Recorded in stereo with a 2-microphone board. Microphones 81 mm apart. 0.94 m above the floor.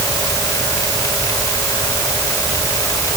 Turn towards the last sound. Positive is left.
No sound to turn to.